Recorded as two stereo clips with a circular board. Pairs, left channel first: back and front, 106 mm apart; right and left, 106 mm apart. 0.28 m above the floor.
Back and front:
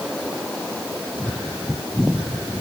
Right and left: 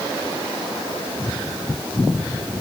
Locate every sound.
Only background noise.